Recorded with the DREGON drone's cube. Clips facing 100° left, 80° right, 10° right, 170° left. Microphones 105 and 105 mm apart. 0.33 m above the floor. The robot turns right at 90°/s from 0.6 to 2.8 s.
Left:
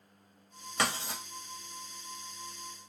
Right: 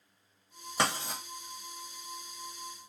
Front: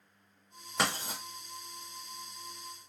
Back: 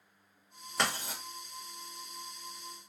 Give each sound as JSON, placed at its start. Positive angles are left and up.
{"t": 0.8, "sound": "writing", "azimuth_deg": -80, "distance_m": 1.1}